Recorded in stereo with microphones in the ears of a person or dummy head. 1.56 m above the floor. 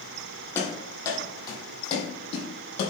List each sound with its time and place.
0.6 s running footsteps: 10° left (ahead or behind), 3.5 m; by 2.9 s 40° left (ahead or behind), 4 m